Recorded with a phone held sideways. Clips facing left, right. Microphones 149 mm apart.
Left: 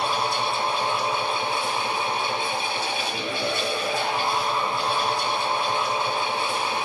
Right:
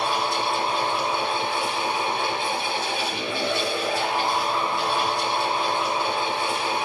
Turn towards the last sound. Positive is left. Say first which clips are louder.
# even
turn(degrees=-85)